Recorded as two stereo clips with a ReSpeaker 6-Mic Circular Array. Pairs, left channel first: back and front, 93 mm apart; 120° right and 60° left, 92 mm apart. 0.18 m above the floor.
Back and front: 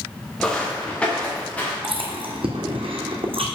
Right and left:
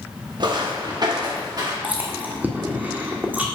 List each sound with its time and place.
0.4 s footsteps: 95° left, 1.7 m; by 1.7 s 105° left, 3 m
1.8 s chewing: 10° right, 1.4 m